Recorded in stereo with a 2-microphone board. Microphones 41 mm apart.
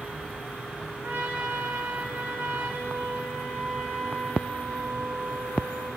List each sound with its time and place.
1.0 s a trumpet: 65° right (ahead or behind), 4.5 m